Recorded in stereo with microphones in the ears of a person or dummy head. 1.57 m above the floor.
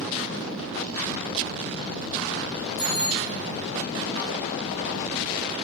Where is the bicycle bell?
60° left (ahead or behind), 3 m.